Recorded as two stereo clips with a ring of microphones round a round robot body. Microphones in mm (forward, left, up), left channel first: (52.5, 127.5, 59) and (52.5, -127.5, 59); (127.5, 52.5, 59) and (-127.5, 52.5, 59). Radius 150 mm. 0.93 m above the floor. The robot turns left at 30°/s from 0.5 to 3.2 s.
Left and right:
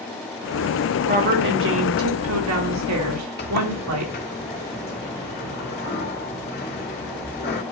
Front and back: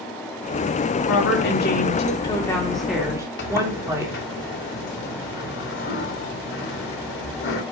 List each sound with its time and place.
1.1 s a woman speaking: 35° right, 3 m; by 4.1 s 100° right, 3 m
3.4 s a sliding door: 40° left, 2.5 m